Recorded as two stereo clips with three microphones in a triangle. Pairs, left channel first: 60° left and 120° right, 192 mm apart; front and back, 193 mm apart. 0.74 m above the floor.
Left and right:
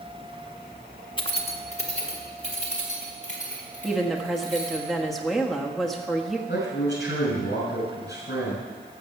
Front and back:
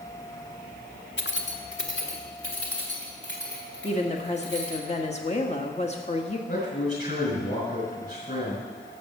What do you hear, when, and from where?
1.2 s keys jangling: 5° right, 1.0 m; by 4.8 s 15° left, 5.5 m
3.8 s a woman speaking: 30° right, 1.3 m
6.5 s a man speaking: 35° left, 5 m